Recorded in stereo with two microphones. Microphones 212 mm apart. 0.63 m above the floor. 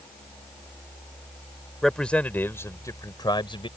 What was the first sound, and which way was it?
A man speaking, centre (ahead or behind).